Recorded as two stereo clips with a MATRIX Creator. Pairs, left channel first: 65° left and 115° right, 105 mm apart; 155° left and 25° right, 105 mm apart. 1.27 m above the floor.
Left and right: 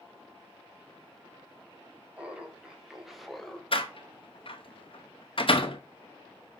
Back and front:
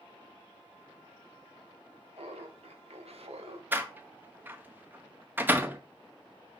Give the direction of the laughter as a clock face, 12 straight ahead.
1 o'clock.